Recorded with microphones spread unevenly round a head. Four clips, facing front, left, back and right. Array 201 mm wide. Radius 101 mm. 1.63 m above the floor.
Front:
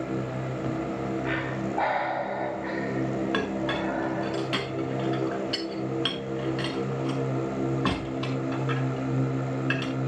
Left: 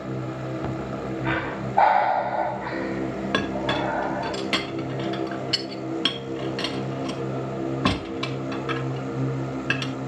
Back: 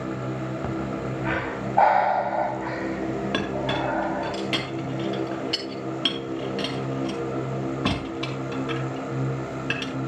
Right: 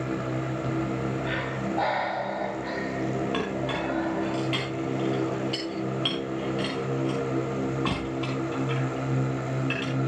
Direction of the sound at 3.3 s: 110° left.